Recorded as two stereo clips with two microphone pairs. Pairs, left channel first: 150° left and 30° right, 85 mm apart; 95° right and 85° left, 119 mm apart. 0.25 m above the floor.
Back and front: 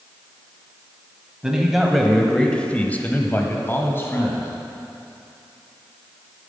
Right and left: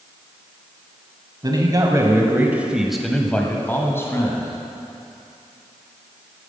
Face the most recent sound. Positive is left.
turn(degrees=-155)